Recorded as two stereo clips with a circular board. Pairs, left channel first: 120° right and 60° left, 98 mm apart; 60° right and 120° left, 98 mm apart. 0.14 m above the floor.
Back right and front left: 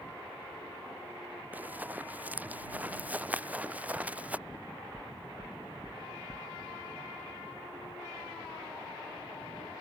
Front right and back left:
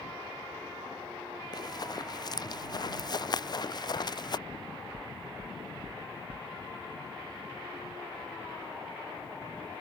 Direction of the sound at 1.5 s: 15° right.